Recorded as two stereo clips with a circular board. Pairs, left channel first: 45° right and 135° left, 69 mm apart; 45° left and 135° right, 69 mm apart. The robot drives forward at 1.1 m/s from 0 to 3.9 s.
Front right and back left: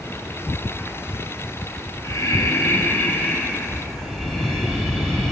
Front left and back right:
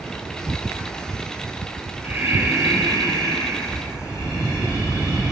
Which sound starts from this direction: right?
Breathing, at 2.0 s.